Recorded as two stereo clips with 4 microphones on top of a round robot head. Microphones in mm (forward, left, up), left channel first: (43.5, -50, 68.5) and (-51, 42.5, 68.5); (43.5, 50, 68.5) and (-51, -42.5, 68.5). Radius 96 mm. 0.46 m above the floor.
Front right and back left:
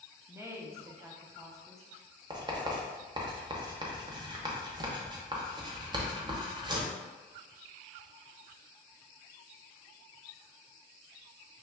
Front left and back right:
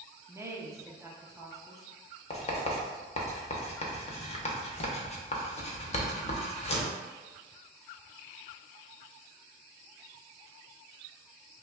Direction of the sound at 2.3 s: 80° left.